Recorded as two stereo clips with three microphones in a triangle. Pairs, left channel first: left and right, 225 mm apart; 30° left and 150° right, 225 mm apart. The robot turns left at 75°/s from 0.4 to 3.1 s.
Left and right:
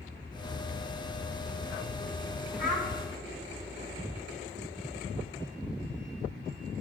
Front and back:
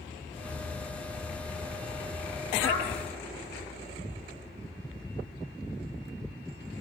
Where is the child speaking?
40° left, 4 m; by 2.9 s 20° left, 4 m.